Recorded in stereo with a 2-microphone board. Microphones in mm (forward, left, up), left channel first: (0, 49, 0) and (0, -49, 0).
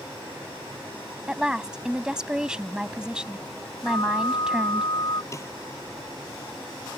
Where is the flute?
45° left (ahead or behind).